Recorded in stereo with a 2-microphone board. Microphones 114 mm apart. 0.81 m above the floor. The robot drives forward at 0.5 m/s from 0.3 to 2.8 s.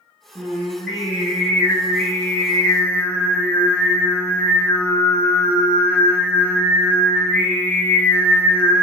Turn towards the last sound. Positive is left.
turn(degrees=20)  # may be behind; listen again after turning